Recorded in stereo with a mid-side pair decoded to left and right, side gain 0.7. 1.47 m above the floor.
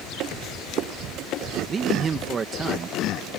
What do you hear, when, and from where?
1.7 s a man speaking: 30° right